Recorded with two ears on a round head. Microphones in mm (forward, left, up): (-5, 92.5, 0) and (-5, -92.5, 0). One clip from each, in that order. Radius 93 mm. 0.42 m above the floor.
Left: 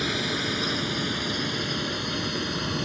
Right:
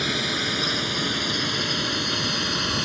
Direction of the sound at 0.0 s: 15° right (ahead or behind).